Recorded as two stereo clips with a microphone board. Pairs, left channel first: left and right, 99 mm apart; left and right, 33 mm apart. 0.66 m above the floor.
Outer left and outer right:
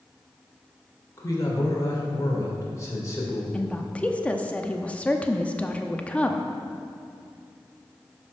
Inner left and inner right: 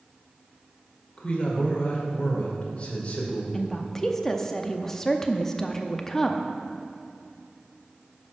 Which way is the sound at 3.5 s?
15° left (ahead or behind).